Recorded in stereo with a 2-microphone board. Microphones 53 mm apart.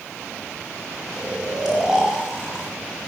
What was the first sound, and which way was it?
Snoring, 5° right (ahead or behind).